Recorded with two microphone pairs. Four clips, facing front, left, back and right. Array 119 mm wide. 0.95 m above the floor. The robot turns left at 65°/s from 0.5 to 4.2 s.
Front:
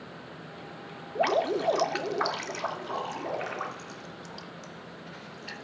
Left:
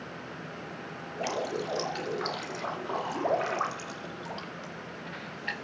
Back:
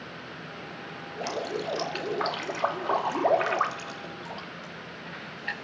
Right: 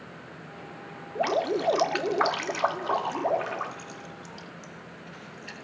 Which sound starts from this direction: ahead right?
Dripping, at 1.1 s.